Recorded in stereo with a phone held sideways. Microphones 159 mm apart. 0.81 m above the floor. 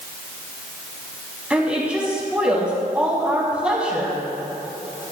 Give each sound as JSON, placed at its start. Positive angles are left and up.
{"t": 1.5, "sound": "a woman speaking", "side_deg": -5, "distance_m": 5.5}